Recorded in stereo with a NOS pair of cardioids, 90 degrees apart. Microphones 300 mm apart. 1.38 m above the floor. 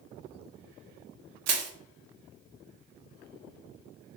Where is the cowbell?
I don't hear a cowbell.